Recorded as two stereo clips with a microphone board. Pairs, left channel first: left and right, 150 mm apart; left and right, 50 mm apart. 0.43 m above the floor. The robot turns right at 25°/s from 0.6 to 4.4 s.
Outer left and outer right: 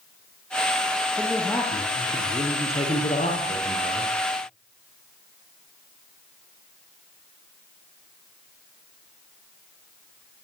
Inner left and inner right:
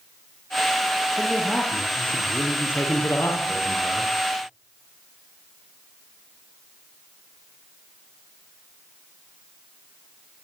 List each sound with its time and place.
1.2 s a man speaking: 5° left, 9.5 m; by 4.1 s 80° left, 9.5 m